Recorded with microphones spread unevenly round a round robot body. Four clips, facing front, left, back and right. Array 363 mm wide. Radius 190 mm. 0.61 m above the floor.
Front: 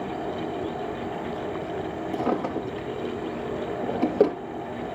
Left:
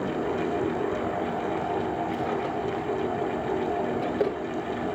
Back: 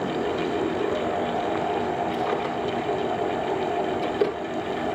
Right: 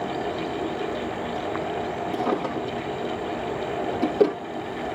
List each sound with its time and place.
2.1 s a drawer: 35° right, 3 m